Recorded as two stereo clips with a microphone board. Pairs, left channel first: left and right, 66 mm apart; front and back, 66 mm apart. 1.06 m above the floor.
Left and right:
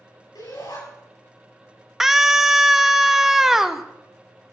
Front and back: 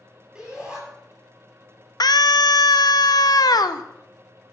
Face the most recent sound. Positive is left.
turn(degrees=-5)